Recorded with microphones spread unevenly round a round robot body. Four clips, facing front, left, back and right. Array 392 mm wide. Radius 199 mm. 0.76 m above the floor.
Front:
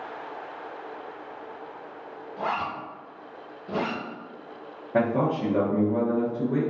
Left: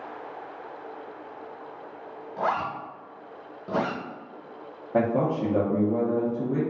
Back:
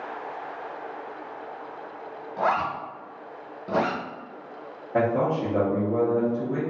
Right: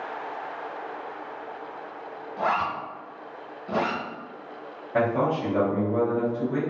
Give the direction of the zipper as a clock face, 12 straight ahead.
7 o'clock.